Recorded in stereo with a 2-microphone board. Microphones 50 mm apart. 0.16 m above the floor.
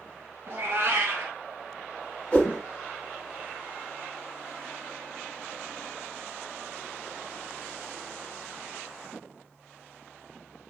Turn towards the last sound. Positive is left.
turn(degrees=25)  # may be behind; listen again after turning